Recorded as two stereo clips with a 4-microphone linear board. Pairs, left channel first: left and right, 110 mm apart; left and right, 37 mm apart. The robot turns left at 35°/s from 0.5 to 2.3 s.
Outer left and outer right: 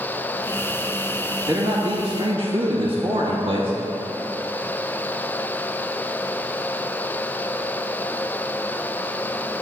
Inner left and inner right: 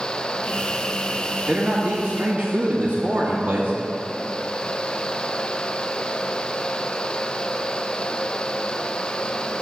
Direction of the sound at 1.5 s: 30° right (ahead or behind).